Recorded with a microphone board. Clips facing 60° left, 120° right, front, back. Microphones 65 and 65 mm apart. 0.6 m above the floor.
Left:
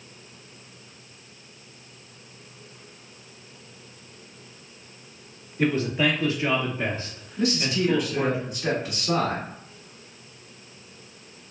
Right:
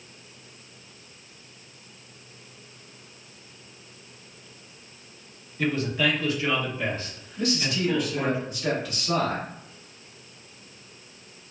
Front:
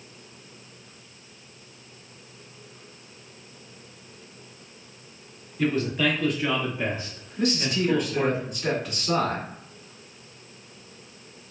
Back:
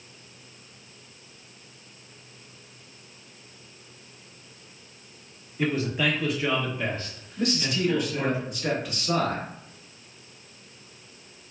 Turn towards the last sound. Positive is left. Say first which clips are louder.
# left 2 dB, front 1 dB
turn(degrees=85)